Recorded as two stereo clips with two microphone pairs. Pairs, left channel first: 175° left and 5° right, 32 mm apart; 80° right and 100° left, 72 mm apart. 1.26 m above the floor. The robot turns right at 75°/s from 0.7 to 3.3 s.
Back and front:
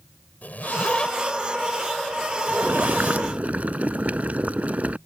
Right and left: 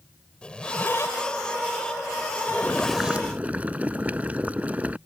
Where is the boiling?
15° right; by 5.0 s 35° left.